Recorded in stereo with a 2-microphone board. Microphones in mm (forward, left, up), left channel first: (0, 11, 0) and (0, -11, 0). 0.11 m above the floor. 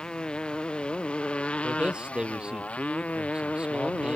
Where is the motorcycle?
40° left (ahead or behind); by 4.2 s 70° left (ahead or behind).